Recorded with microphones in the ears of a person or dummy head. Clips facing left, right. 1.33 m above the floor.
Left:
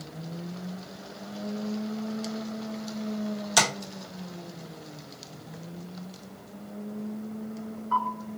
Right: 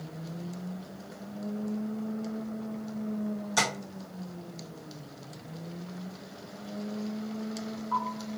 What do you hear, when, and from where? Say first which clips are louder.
3.6 s tapping: left 5 dB; 75° left (ahead or behind), 1.0 m